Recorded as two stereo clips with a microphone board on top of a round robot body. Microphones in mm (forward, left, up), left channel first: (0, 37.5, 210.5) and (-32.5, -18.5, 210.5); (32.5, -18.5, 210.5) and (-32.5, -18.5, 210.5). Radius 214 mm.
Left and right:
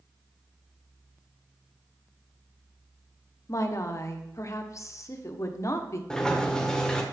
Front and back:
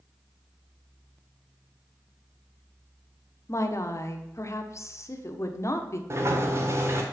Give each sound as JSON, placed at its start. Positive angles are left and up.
{"t": 3.5, "sound": "a woman speaking", "azimuth_deg": 30, "distance_m": 1.5}
{"t": 6.1, "sound": "a sliding door", "azimuth_deg": 140, "distance_m": 1.8}